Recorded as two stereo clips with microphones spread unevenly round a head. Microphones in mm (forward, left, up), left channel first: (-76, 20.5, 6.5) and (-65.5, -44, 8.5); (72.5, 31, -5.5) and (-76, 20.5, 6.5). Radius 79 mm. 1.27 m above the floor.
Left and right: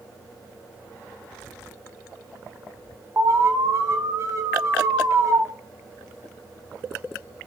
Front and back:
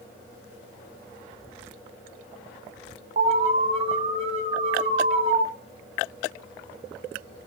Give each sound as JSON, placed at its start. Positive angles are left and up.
{"t": 3.2, "sound": "an alarm", "azimuth_deg": -125, "distance_m": 1.2}